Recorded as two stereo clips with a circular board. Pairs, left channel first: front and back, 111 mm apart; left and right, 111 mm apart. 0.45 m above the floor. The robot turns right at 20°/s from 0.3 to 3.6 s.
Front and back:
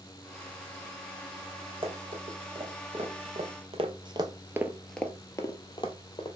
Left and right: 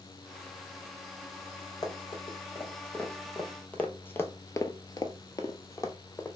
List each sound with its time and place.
1.8 s running footsteps: 145° left, 1.6 m; by 6.3 s 30° left, 0.9 m